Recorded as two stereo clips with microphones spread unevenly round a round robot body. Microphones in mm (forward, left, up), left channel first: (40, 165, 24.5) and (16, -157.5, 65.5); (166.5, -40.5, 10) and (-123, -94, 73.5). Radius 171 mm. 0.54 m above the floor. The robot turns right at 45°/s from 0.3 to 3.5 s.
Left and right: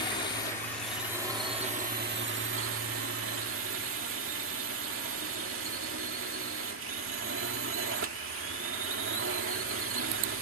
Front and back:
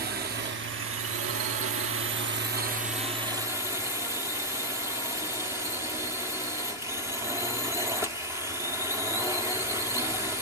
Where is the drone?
140° left; by 10.4 s 80° right.